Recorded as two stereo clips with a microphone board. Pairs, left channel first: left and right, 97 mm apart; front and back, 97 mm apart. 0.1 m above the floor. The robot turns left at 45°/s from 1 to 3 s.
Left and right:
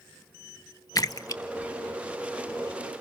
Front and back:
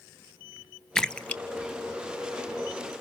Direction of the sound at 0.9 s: 80° left.